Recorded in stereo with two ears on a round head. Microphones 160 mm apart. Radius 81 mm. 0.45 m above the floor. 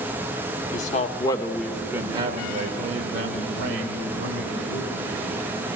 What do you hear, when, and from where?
0.7 s a man speaking: 45° left (ahead or behind), 1.1 m; by 5.1 s 60° right (ahead or behind), 3 m